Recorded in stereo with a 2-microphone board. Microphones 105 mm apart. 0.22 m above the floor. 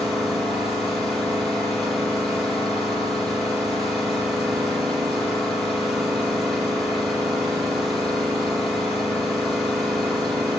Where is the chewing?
I don't hear chewing.